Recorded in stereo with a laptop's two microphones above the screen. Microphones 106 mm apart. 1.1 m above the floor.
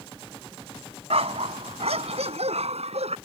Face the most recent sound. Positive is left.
turn(degrees=-80)